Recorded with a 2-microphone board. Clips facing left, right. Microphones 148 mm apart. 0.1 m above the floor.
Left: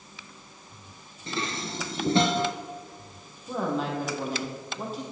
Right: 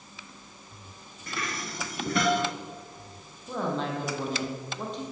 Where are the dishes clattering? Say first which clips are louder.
Left 3 dB; 25° left (ahead or behind), 0.9 m.